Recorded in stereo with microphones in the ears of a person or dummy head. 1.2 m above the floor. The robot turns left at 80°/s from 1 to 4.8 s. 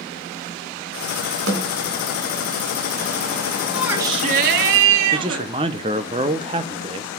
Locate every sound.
1.5 s a snare drum: 65° right (ahead or behind), 2 m; by 1.8 s 55° right (ahead or behind), 2 m
3.7 s a shout: 5° left, 2.5 m; by 5.5 s 80° right, 2.5 m
5.1 s a man speaking: 25° right (ahead or behind), 0.7 m